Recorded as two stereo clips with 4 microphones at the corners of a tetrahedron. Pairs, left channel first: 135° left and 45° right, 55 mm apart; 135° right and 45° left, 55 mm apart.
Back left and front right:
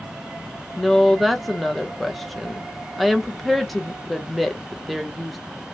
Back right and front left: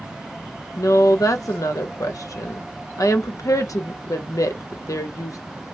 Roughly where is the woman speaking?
Behind right.